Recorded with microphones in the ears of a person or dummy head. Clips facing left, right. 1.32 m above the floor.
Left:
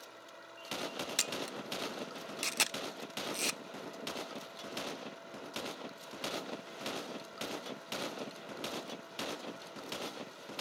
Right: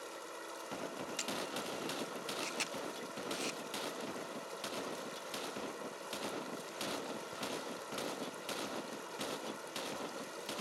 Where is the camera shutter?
55° left (ahead or behind).